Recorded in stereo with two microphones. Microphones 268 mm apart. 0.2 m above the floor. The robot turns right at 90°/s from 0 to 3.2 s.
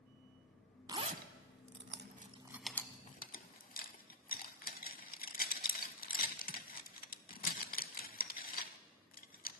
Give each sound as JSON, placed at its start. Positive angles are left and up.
{"t": 0.9, "sound": "a zipper", "side_deg": -15, "distance_m": 0.5}